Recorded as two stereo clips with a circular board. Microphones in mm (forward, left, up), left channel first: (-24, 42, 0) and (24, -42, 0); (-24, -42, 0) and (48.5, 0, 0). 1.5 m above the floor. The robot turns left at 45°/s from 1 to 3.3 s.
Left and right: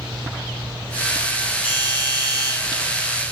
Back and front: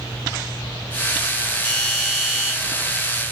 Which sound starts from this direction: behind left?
A doorbell, at 1.6 s.